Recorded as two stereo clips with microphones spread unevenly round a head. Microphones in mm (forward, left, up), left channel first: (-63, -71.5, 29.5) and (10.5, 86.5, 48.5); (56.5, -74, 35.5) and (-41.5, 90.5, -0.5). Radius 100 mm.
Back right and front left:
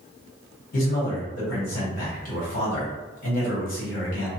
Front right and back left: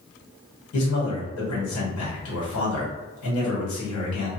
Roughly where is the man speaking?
Right.